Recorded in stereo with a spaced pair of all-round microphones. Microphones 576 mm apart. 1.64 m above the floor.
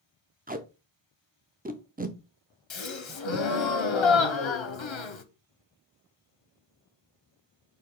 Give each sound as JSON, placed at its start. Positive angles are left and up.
{"t": 0.5, "sound": "tape being pulled", "side_deg": -15, "distance_m": 0.5}
{"t": 2.7, "sound": "a gasp", "side_deg": 55, "distance_m": 0.6}